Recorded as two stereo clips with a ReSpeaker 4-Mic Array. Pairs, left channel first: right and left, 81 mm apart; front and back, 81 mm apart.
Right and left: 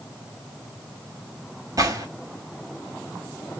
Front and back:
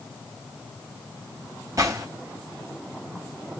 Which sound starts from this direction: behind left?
A gunshot, at 1.8 s.